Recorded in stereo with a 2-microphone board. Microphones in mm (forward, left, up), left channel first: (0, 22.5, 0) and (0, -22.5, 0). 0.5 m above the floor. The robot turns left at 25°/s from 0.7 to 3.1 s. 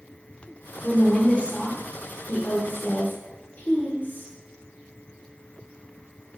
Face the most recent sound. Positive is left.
turn(degrees=45)  # may be behind; listen again after turning